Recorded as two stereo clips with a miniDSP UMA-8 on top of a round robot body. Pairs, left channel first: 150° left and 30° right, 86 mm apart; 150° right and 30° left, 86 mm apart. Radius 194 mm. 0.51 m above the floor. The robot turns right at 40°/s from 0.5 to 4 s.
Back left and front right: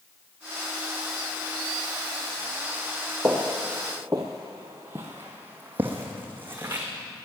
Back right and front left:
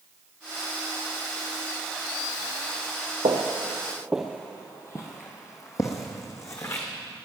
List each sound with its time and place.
3.2 s footsteps: 45° left, 0.7 m; by 6.9 s 100° right, 1.9 m